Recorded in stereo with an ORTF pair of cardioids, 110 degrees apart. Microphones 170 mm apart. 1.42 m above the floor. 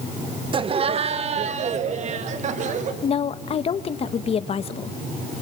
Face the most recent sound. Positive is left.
turn(degrees=40)